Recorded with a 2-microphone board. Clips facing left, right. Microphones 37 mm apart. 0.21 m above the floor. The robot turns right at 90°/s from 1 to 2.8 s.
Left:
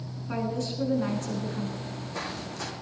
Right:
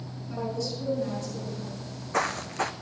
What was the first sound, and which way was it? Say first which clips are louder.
A woman speaking: left 1 dB; 55° left.